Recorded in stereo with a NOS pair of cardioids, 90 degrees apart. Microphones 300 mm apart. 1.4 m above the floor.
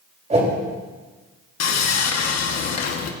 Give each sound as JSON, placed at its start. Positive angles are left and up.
{"t": 0.3, "sound": "a whoosh", "azimuth_deg": -25, "distance_m": 3.0}
{"t": 1.6, "sound": "sawing", "azimuth_deg": 60, "distance_m": 1.3}